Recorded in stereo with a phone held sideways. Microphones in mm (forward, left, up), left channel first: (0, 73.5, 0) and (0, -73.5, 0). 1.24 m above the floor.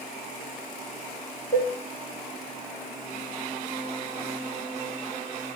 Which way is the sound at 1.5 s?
65° left (ahead or behind).